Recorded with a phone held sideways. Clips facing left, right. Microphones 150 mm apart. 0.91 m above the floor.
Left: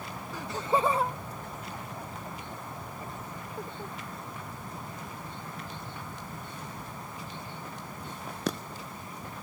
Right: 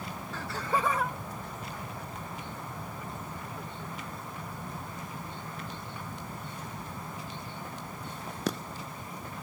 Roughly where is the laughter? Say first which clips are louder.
Left 3 dB; centre.